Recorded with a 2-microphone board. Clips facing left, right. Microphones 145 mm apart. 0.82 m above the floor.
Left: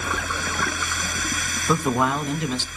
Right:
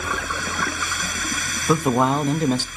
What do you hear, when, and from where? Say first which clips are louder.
1.7 s a man speaking: right 3 dB; 15° right (ahead or behind), 0.9 m; by 2.7 s 50° right (ahead or behind), 1.0 m